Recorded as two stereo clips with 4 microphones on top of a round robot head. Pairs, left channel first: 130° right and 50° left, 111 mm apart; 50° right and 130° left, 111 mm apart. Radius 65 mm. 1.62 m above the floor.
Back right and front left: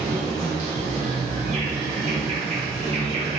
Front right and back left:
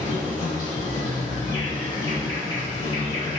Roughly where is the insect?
Ahead.